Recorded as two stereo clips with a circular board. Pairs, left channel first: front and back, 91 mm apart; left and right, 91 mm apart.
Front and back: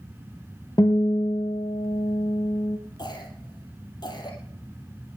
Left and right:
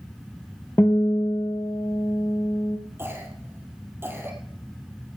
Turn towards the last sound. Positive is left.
turn(degrees=-30)